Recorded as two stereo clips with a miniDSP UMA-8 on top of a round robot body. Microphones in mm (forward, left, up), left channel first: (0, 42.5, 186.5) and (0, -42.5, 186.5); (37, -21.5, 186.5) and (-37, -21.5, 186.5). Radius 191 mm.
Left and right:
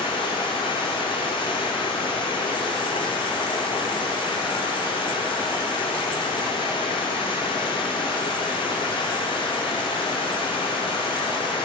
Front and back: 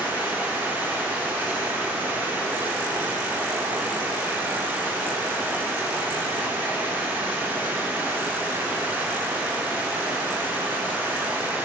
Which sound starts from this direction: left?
Running water, at 0.0 s.